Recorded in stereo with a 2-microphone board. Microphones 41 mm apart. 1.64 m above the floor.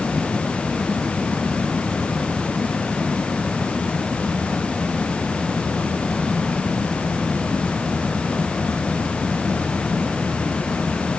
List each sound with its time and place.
Only background noise.